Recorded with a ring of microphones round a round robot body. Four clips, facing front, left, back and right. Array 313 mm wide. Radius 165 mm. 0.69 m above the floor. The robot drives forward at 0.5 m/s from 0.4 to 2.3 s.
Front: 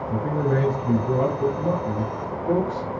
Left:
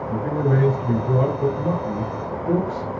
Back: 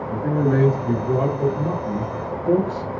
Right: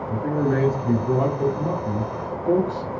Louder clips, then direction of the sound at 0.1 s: Even, back 3 dB; 100° right.